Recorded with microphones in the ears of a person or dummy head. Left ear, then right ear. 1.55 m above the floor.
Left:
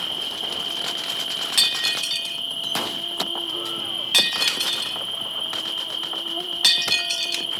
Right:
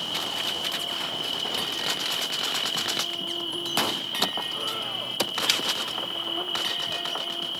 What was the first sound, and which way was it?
An insect, 35° left (ahead or behind).